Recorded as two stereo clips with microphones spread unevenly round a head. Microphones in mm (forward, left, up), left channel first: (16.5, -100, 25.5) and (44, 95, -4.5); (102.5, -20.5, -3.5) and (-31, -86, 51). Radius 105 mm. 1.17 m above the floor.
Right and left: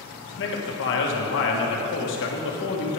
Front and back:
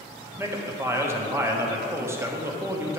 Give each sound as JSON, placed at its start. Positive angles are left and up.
{"t": 0.4, "sound": "a man speaking", "azimuth_deg": -75, "distance_m": 1.5}